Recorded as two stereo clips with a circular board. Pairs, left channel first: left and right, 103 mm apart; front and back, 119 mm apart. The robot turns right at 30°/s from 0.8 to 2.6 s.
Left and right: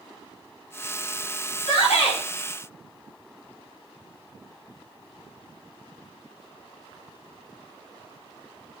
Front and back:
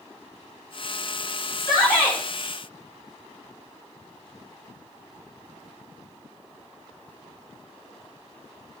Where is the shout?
60° left, 5.5 m; by 2.2 s 75° left, 5.5 m.